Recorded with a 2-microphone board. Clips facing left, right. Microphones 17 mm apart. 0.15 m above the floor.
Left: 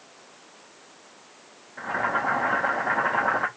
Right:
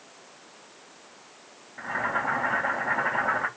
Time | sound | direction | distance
1.8 | boiling | 45° left (ahead or behind) | 1.4 m